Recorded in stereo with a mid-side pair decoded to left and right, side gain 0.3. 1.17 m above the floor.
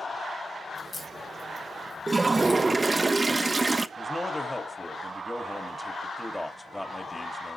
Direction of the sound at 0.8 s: 60° left.